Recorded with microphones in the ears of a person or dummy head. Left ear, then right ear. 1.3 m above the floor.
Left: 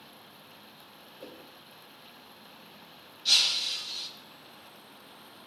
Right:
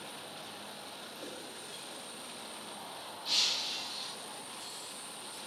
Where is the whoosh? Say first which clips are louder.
Even; 15° left (ahead or behind), 1.8 m.